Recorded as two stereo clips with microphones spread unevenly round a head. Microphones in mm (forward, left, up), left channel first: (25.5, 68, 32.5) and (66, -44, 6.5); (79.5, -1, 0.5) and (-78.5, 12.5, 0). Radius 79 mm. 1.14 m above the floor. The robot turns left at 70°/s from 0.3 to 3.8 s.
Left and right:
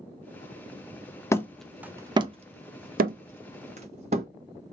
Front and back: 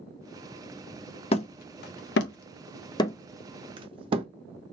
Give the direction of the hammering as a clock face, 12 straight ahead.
10 o'clock.